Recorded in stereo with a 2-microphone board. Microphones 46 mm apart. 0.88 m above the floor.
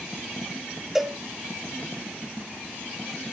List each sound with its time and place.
0.9 s a cowbell: 5° right (ahead or behind), 0.9 m